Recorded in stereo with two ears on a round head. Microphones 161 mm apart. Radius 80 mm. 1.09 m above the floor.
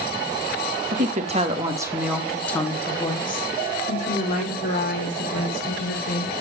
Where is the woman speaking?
50° right (ahead or behind), 1.3 m; by 6.3 s 55° left (ahead or behind), 3.5 m.